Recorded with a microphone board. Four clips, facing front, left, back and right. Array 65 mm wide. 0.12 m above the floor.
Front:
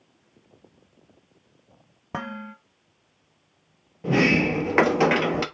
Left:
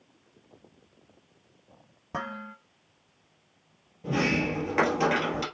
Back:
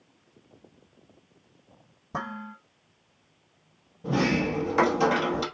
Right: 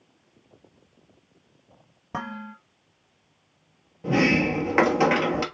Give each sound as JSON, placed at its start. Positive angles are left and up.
{"t": 2.1, "sound": "dishes clattering", "azimuth_deg": -5, "distance_m": 1.9}
{"t": 4.0, "sound": "a sliding door", "azimuth_deg": -25, "distance_m": 1.3}